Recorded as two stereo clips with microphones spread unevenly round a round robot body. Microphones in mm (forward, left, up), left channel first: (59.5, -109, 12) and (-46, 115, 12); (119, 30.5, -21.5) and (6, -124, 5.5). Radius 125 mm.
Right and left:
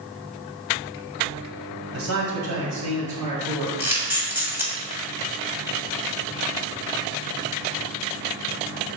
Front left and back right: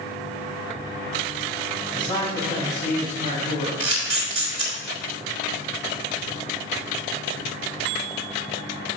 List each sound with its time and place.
1.9 s a man speaking: 130° left, 1.9 m; by 3.7 s 100° left, 3 m
3.8 s a camera shutter: 165° right, 1.9 m